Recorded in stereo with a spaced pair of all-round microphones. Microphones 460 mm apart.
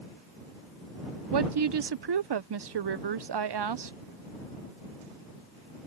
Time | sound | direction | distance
1.3 | a woman speaking | 60° right (ahead or behind) | ?